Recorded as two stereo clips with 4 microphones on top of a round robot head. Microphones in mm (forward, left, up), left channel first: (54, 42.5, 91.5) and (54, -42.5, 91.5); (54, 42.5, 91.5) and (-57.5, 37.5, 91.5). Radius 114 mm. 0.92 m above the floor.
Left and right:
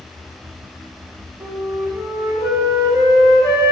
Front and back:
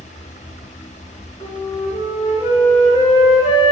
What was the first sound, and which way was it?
A flute, 35° right.